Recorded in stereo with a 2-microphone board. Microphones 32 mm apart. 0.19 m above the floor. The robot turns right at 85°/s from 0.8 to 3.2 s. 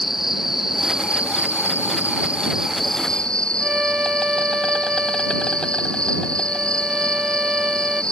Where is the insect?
170° right; by 8.1 s 30° left.